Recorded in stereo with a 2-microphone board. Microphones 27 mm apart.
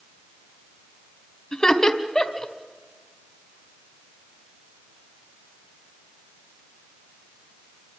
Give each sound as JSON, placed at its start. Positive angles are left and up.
{"t": 1.5, "sound": "laughter", "side_deg": 25, "distance_m": 1.5}